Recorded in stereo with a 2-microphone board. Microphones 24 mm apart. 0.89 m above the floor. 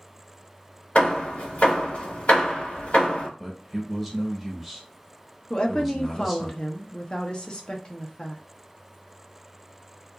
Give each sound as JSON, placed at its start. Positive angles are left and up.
{"t": 0.9, "sound": "hammering", "side_deg": 60, "distance_m": 1.3}
{"t": 3.4, "sound": "a man speaking", "side_deg": 0, "distance_m": 1.0}
{"t": 5.5, "sound": "a woman speaking", "side_deg": 30, "distance_m": 0.6}